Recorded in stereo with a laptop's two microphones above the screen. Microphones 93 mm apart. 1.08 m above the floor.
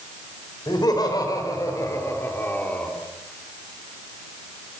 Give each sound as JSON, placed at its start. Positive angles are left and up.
{"t": 0.7, "sound": "laughter", "side_deg": 50, "distance_m": 5.5}